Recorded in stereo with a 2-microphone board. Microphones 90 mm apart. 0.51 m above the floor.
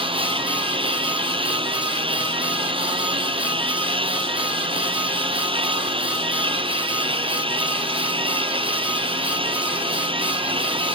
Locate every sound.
0.0 s a lawn mower: 80° right